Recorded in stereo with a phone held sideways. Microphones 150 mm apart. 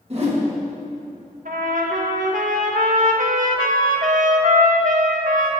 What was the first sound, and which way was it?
A whoosh, 45° right (ahead or behind).